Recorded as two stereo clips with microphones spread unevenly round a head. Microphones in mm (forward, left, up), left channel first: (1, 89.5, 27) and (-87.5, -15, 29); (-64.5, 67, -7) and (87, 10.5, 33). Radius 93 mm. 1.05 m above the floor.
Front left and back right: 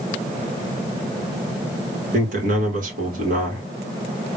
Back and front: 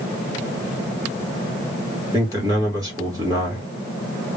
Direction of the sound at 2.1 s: 95° right.